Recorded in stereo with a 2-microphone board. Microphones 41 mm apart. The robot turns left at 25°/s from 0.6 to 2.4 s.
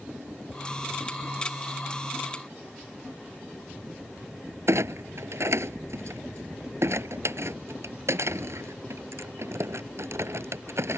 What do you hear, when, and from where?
4.7 s a clunk: 80° right